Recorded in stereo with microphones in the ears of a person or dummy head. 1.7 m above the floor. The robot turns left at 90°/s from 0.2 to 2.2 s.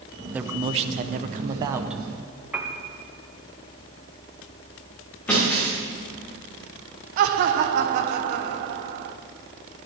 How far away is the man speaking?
About 0.7 m.